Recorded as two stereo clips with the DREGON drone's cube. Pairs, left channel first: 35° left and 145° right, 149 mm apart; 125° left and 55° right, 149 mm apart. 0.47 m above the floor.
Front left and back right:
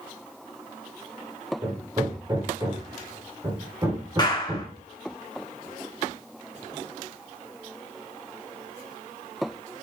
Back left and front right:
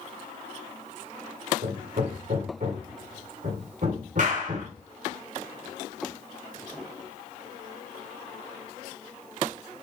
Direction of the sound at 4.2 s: 30° right.